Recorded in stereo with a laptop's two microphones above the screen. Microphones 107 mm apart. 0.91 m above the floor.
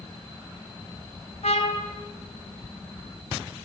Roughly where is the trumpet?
Left.